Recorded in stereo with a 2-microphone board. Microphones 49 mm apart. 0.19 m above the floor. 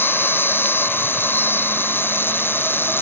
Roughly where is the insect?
Left.